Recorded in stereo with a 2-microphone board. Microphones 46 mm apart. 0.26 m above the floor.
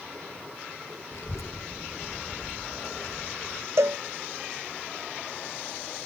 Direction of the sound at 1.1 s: 75° left (ahead or behind).